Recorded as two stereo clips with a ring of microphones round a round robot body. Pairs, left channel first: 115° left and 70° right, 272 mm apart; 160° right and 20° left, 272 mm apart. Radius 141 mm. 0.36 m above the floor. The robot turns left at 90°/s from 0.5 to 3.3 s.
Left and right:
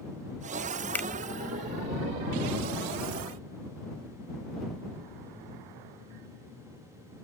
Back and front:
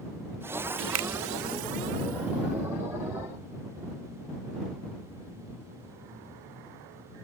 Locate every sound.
0.9 s a finger snap: 30° left; by 1.1 s 15° left